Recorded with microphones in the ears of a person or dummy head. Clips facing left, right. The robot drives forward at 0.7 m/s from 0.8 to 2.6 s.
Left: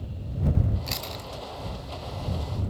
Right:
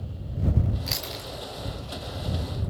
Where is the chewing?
10° right (ahead or behind), 1.7 m.